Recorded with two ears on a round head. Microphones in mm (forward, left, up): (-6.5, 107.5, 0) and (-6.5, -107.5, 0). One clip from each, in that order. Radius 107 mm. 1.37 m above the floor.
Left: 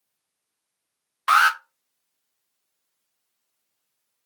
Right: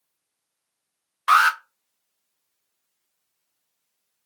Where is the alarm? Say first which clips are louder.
Right 1 dB; 5° left (ahead or behind), 0.5 m.